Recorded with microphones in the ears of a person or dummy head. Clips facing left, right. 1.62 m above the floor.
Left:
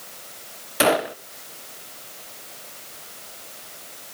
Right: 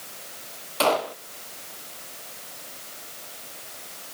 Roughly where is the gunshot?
Centre.